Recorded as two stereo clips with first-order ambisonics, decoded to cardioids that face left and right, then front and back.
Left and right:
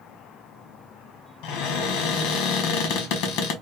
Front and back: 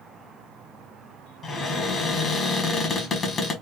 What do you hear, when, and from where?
1.4 s a cupboard door: 70° left, 1.0 m